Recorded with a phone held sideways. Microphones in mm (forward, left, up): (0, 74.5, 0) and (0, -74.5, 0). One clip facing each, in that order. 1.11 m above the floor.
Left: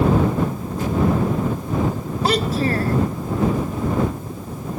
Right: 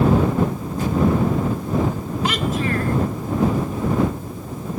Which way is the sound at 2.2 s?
35° left (ahead or behind).